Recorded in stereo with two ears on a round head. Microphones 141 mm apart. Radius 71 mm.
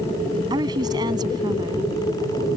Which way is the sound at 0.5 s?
25° right (ahead or behind).